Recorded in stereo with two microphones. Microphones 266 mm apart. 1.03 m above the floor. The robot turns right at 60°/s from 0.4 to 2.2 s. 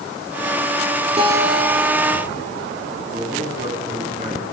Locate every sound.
1.2 s a guitar: 25° right, 4 m; by 2.5 s 40° left, 4 m
3.1 s a man speaking: 30° right (ahead or behind), 8 m